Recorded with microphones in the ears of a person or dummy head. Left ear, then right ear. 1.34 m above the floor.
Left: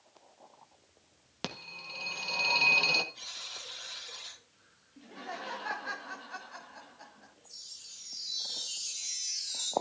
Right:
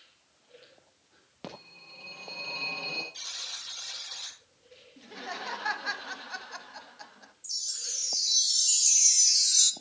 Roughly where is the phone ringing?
Left.